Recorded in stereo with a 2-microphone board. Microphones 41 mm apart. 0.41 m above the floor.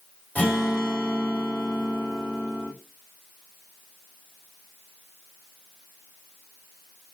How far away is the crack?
I don't hear a crack.